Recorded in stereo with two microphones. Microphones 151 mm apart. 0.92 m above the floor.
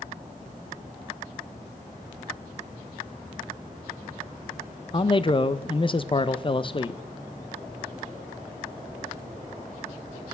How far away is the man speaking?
About 0.5 m.